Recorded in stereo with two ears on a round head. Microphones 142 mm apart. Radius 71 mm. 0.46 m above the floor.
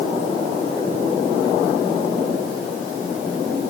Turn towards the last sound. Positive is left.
No sound to turn to.